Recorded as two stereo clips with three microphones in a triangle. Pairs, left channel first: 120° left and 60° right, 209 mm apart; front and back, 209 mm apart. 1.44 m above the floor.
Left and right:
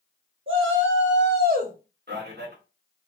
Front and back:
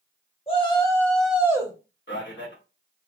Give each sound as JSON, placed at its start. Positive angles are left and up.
{"t": 0.5, "sound": "a shout", "azimuth_deg": -60, "distance_m": 1.0}
{"t": 2.1, "sound": "a man speaking", "azimuth_deg": -25, "distance_m": 1.0}